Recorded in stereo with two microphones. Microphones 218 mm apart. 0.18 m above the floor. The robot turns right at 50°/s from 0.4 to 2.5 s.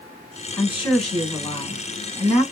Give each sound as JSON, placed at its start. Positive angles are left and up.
{"t": 0.5, "sound": "a woman speaking", "side_deg": 20, "distance_m": 1.3}